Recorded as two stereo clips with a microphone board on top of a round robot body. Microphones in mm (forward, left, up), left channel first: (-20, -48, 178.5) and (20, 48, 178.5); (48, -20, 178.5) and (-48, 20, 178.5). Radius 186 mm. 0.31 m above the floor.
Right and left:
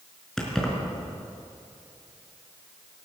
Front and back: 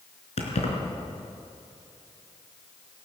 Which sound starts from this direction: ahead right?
Keys jangling, at 0.4 s.